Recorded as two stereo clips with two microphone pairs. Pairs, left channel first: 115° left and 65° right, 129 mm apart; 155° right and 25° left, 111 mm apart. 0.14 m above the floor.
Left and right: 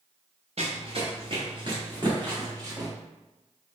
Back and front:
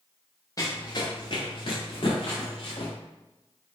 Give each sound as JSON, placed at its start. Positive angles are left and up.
{"t": 0.6, "sound": "running footsteps", "azimuth_deg": -95, "distance_m": 1.4}